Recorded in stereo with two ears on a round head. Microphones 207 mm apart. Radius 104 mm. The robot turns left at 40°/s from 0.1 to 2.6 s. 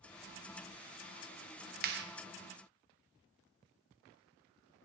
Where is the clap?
40° right (ahead or behind), 1.0 m; by 2.0 s 50° right (ahead or behind), 1.0 m.